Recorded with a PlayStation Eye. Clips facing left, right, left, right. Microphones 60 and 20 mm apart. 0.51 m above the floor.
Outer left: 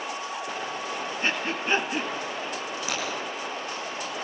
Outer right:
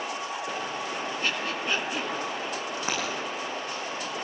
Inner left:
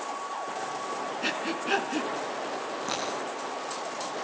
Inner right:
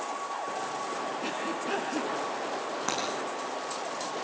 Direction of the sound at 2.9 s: 35° right (ahead or behind).